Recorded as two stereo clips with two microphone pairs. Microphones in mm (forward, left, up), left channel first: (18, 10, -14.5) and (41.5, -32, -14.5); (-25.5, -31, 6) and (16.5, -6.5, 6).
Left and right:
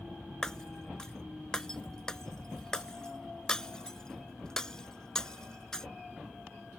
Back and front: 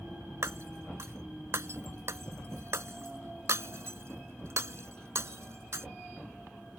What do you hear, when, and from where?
0.4 s breaking glass: 45° left